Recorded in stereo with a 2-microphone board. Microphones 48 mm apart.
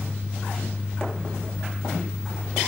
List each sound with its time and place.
Only background noise.